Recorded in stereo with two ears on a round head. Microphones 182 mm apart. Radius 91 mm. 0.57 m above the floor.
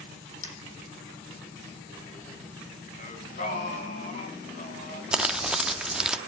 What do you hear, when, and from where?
0.4 s a dropped coin: 80° left, 7 m
3.0 s singing: 40° left (ahead or behind), 3.5 m
5.1 s crumpling: 5° right (ahead or behind), 0.7 m